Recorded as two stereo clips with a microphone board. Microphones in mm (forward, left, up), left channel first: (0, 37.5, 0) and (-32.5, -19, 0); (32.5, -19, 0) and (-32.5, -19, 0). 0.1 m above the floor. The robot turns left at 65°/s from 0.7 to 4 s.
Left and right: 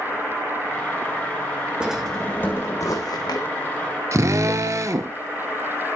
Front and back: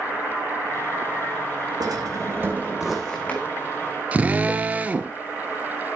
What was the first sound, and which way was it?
A drawer, 165° left.